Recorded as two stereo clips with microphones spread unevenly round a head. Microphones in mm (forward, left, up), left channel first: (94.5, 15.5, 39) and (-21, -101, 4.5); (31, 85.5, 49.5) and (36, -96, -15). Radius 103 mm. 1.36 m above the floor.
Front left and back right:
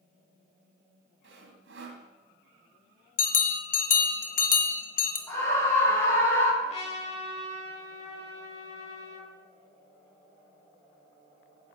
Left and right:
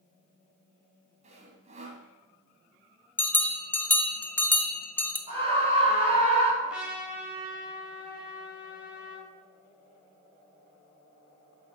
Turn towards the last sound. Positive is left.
turn(degrees=0)